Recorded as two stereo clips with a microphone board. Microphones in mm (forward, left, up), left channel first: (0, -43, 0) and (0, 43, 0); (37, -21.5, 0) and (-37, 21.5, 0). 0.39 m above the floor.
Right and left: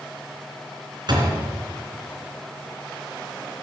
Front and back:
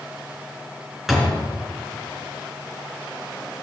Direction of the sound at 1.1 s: 65° left.